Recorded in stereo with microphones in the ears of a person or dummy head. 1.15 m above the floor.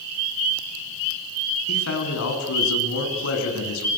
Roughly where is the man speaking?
Left.